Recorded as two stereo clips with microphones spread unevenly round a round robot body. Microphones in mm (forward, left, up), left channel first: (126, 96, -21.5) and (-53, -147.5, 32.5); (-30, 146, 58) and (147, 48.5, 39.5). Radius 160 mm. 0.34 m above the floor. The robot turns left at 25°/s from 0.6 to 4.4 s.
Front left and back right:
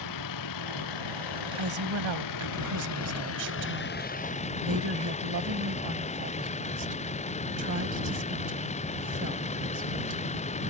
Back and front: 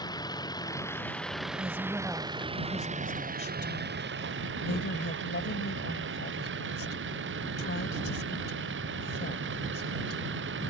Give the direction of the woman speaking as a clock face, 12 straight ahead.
3 o'clock.